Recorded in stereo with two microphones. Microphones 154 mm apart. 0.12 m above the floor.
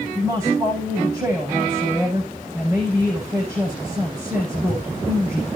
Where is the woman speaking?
15° right (ahead or behind), 8 m.